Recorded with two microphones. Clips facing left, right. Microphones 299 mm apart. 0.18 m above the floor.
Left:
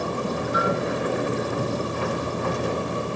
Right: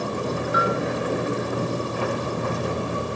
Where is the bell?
70° right (ahead or behind), 4 m.